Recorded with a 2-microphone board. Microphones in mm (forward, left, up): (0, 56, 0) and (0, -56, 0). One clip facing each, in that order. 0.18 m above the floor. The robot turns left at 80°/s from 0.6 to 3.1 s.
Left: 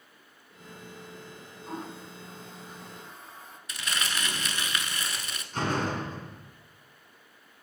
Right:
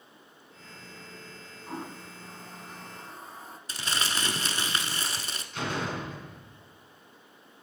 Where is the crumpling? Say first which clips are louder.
Right 1 dB; 35° right (ahead or behind), 1.0 m.